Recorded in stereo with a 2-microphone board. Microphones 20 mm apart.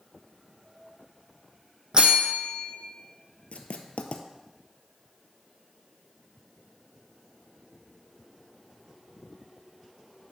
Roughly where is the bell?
Right.